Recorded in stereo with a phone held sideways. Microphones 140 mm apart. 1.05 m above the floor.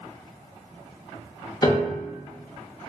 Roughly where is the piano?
Left.